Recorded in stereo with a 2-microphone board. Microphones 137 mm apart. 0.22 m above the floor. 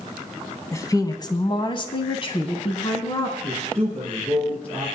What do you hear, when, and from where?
0.7 s a woman speaking: 25° left (ahead or behind), 1.4 m; by 3.3 s 35° left (ahead or behind), 1.8 m
3.4 s a man speaking: 10° left (ahead or behind), 4.5 m